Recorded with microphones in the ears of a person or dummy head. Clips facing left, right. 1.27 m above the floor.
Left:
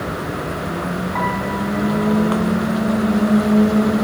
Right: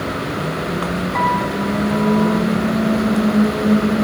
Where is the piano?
75° right (ahead or behind), 2 m.